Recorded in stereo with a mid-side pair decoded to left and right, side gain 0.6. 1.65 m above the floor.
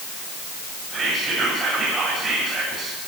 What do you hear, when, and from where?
0.9 s whispering: 30° right, 7 m